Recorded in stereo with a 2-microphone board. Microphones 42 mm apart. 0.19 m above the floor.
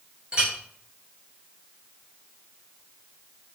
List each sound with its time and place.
0.3 s a clink: 20° right (ahead or behind), 1.7 m